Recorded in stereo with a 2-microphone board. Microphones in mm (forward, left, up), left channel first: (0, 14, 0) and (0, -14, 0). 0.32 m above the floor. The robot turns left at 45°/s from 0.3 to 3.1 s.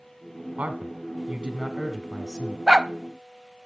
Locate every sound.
0.6 s a man speaking: 90° right, 1.3 m; by 2.6 s straight behind, 1.3 m
2.7 s a dog barking: 20° right (ahead or behind), 0.5 m; by 2.9 s 30° right (ahead or behind), 0.5 m